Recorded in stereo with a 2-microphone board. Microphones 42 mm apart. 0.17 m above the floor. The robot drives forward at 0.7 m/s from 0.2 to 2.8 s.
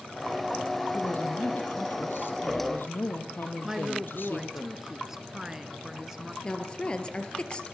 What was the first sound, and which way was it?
A woman speaking, 55° left (ahead or behind).